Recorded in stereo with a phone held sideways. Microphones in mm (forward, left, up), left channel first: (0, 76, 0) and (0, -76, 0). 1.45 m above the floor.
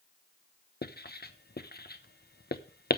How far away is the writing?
About 0.9 m.